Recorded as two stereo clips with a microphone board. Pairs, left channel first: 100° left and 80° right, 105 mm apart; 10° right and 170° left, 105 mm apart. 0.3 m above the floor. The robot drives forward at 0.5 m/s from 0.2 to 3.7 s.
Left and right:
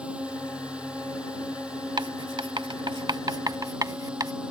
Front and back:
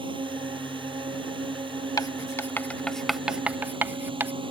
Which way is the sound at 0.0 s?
160° right.